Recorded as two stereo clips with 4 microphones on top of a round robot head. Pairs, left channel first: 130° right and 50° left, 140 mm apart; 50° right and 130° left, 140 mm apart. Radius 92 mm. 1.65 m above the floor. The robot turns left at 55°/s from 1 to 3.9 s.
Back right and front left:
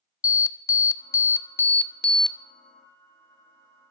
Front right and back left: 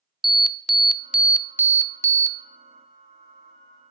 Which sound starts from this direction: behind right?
An alarm, at 0.2 s.